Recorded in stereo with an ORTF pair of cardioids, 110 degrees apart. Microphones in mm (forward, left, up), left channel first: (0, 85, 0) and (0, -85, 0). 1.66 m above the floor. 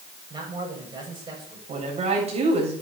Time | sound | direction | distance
0.3 | a man speaking | 25° right | 8.5 m
1.7 | a woman speaking | 40° right | 9 m